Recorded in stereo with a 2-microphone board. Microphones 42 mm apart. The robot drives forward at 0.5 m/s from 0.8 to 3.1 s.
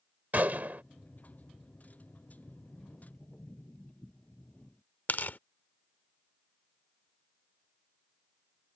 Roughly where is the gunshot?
Right.